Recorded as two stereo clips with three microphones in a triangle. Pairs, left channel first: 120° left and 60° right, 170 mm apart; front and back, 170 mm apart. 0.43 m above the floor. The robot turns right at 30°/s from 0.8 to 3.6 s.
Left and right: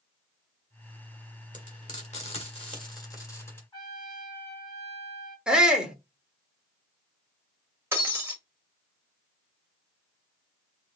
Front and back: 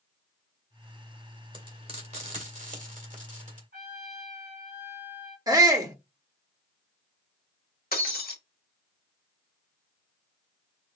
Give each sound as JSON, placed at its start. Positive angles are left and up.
{"t": 1.5, "sound": "frying", "azimuth_deg": 130, "distance_m": 2.0}
{"t": 3.7, "sound": "a trumpet", "azimuth_deg": 180, "distance_m": 3.5}
{"t": 5.5, "sound": "a shout", "azimuth_deg": -140, "distance_m": 1.2}
{"t": 7.9, "sound": "breaking glass", "azimuth_deg": 15, "distance_m": 1.1}